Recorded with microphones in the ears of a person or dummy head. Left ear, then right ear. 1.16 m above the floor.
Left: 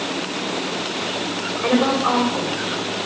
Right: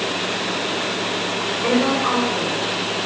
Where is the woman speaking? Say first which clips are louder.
Left 1 dB; 10° left (ahead or behind), 5.5 m.